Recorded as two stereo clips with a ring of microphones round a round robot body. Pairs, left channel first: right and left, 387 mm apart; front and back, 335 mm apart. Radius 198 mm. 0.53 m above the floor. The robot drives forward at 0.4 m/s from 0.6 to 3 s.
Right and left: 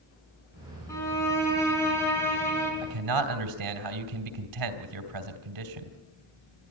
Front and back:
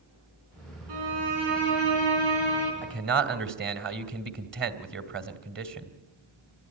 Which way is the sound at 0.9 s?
175° right.